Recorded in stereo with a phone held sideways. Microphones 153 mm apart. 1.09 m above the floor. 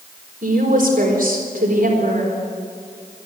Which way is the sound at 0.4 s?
65° right (ahead or behind).